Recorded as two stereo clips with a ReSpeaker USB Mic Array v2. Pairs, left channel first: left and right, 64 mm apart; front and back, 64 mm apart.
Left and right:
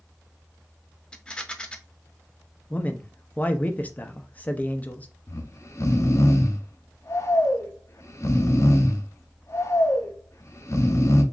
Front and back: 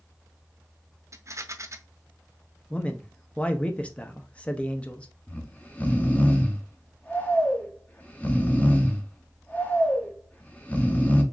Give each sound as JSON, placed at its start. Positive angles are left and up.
{"t": 1.1, "sound": "a rattle", "azimuth_deg": 160, "distance_m": 0.5}
{"t": 2.7, "sound": "a man speaking", "azimuth_deg": 55, "distance_m": 0.6}
{"t": 5.3, "sound": "snoring", "azimuth_deg": 60, "distance_m": 0.7}